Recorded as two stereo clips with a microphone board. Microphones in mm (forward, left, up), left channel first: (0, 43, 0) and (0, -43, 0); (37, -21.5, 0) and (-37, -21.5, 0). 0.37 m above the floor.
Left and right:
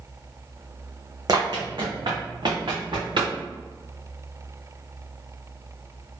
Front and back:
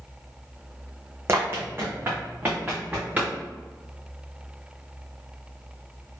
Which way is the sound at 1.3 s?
125° right.